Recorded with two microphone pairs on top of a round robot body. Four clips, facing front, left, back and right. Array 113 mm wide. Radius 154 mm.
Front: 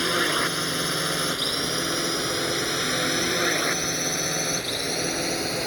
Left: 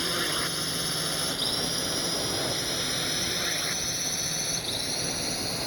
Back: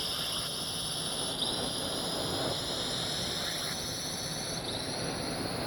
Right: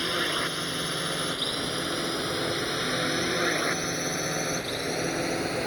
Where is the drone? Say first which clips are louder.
Right 2 dB, front 16 dB; 10° right; by 5.7 s 50° right.